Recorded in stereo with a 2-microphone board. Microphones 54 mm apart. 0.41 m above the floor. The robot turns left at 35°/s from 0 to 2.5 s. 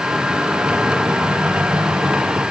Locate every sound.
Only background noise.